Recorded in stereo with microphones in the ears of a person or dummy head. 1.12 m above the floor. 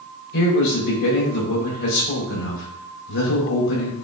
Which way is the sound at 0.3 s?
70° left (ahead or behind).